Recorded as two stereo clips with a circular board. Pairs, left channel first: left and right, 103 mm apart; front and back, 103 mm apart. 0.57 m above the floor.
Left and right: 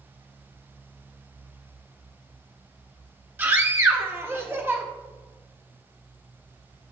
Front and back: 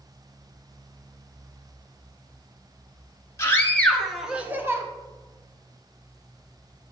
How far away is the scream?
About 1.4 m.